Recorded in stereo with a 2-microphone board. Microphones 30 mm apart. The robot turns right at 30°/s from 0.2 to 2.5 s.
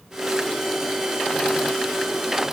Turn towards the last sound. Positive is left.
No sound to turn to.